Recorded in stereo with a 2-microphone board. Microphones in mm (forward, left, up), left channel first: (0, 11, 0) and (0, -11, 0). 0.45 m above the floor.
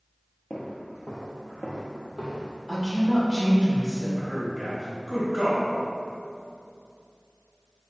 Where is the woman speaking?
20° right (ahead or behind), 1.0 m.